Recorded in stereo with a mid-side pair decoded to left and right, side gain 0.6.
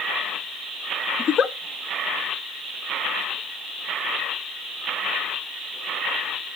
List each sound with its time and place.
1.2 s a giggle: 35° left, 0.8 m